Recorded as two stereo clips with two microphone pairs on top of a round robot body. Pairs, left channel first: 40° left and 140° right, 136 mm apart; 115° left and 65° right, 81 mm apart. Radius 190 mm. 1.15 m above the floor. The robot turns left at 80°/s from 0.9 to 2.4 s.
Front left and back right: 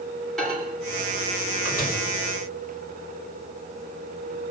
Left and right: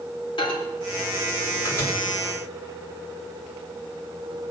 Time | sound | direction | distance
0.4 | a microwave | 125° left | 3.5 m